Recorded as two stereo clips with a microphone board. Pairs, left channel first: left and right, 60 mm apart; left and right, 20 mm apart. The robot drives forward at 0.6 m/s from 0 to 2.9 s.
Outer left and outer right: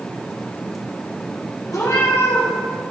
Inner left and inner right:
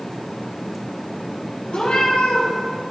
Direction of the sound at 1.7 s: 75° left (ahead or behind).